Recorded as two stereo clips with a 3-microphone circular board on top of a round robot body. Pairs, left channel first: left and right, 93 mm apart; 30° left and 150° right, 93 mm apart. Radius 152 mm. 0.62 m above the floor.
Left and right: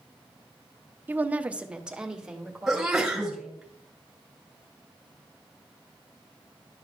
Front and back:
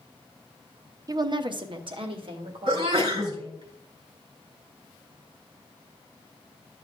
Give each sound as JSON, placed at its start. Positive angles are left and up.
{"t": 1.1, "sound": "a woman speaking", "azimuth_deg": -150, "distance_m": 0.6}
{"t": 2.7, "sound": "a sneeze", "azimuth_deg": -175, "distance_m": 3.0}